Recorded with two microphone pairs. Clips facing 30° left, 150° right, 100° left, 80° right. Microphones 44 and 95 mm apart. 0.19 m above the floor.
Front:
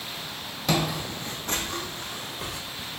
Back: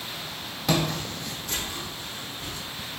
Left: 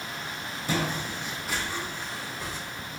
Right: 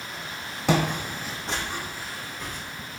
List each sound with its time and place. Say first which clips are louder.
0.7 s footsteps: even, right 6 dB; 60° right, 0.6 m; by 2.6 s 20° left, 1.0 m